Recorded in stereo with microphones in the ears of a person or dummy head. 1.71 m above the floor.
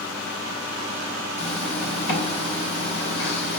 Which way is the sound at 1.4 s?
70° left (ahead or behind).